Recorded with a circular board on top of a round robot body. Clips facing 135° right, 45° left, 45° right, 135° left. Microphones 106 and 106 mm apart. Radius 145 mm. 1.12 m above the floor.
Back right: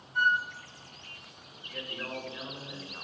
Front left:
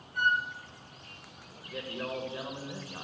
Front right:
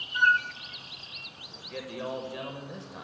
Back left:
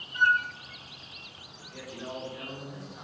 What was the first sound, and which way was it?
A flute, 105° right.